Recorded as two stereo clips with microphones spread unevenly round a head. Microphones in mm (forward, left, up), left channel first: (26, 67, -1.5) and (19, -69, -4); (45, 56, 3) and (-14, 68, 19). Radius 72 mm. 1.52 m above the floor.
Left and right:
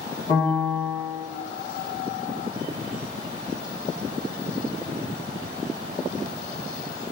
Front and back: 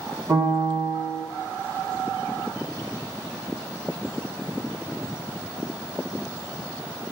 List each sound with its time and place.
0.3 s a piano: 150° left, 1.1 m